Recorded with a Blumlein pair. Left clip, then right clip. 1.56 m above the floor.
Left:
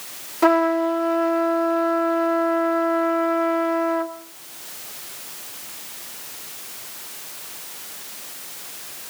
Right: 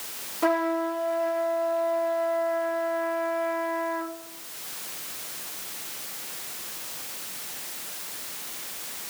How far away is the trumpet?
About 1.1 m.